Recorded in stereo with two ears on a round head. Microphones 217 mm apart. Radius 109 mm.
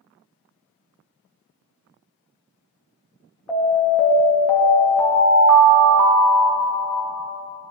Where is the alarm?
5° left (ahead or behind), 2 m.